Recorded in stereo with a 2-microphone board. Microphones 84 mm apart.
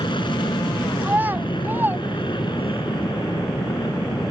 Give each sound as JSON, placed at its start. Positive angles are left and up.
{"t": 0.0, "sound": "an aircraft", "side_deg": 65}
{"t": 1.0, "sound": "a child speaking", "side_deg": -25}